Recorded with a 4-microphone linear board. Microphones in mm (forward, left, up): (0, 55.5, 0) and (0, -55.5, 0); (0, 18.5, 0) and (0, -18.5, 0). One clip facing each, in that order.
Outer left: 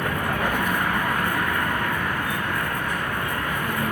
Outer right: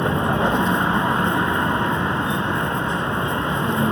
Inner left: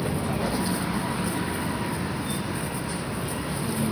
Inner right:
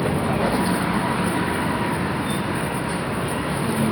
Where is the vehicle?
25° right (ahead or behind).